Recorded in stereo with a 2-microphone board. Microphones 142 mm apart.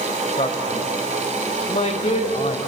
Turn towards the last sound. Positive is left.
turn(degrees=50)  # may be behind; listen again after turning